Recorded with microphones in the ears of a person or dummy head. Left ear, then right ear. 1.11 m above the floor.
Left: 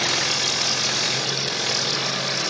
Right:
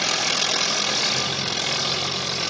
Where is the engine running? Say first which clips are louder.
Even; 20° right (ahead or behind), 2.5 m.